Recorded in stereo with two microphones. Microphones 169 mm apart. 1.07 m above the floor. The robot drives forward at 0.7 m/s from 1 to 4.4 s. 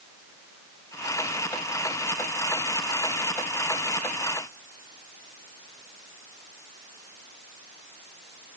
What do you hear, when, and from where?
Only background noise.